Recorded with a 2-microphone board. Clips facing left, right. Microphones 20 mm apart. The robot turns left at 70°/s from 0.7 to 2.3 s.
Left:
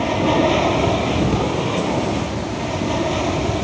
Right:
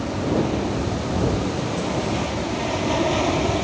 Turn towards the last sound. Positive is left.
turn(degrees=-10)